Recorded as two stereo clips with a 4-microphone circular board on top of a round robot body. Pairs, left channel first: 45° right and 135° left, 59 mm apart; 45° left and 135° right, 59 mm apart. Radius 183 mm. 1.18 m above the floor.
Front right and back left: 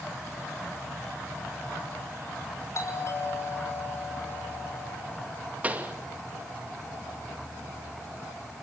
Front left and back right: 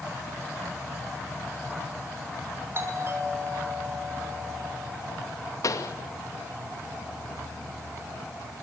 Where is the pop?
70° left, 2.5 m.